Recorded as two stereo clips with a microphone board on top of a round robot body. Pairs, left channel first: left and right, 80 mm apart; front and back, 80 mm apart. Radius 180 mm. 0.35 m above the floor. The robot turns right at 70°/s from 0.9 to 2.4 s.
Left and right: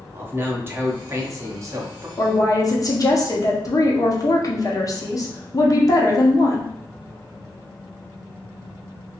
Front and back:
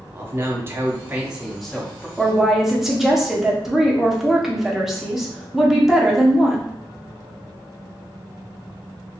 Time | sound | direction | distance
0.1 | a man speaking | 135° right | 1.0 m
2.2 | a woman speaking | 80° left | 1.1 m